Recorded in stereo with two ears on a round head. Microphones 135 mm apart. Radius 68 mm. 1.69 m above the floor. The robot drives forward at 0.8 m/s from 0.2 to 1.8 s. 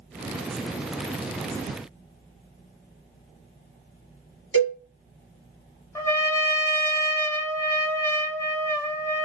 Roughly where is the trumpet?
Centre.